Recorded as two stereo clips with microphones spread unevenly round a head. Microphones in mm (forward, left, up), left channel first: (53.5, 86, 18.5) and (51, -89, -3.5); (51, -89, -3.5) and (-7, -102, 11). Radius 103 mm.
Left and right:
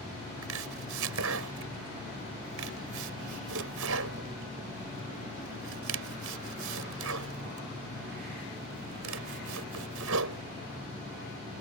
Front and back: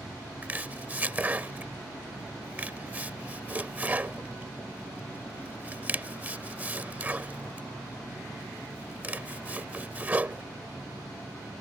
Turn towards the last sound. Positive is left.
turn(degrees=-105)